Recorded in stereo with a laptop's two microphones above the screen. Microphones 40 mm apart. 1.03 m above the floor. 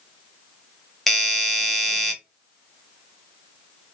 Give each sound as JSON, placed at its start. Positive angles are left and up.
{"t": 1.1, "sound": "a doorbell", "side_deg": 5, "distance_m": 0.7}